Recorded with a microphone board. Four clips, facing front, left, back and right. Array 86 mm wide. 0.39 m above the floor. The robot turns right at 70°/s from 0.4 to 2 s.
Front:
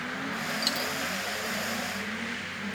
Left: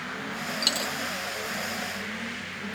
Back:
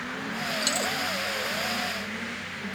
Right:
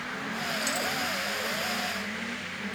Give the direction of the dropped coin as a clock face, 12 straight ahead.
9 o'clock.